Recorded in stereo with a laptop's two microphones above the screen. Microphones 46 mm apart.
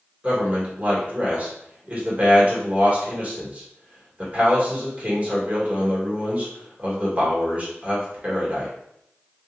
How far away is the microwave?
No microwave in this recording.